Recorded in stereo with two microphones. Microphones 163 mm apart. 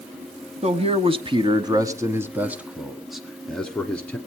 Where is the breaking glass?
I don't hear breaking glass.